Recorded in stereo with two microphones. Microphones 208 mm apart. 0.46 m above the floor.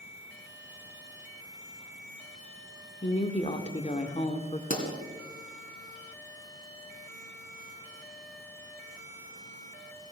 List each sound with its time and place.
3.0 s a woman speaking: 30° left (ahead or behind), 1.1 m
4.7 s a pop: 40° left (ahead or behind), 3 m